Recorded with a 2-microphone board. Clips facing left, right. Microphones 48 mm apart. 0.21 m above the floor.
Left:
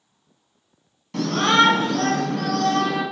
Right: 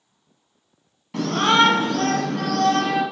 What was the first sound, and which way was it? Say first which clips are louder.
A shout: even; 10° right (ahead or behind).